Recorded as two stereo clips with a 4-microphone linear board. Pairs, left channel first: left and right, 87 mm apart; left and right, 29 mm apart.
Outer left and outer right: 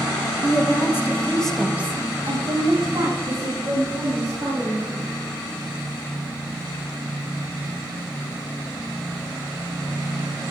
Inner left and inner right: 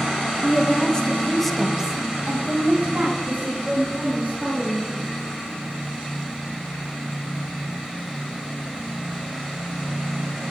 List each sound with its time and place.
0.4 s a woman speaking: 35° left (ahead or behind), 2 m; by 5.1 s 55° right (ahead or behind), 4.5 m